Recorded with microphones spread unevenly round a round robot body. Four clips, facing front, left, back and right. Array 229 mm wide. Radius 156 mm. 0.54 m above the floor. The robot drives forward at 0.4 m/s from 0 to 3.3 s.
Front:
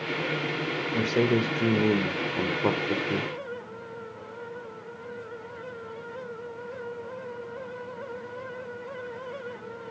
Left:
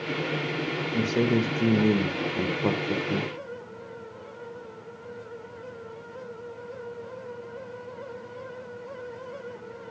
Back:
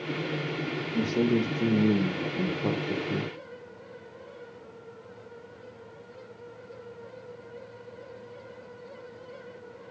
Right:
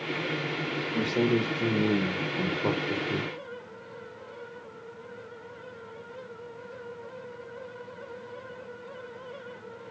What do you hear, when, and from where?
0.9 s a man speaking: straight ahead, 3 m